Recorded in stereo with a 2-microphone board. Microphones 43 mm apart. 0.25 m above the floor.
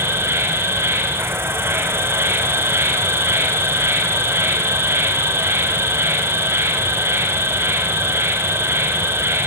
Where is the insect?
85° right, 4 m.